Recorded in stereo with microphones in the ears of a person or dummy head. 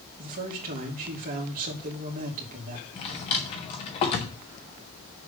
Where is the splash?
I don't hear a splash.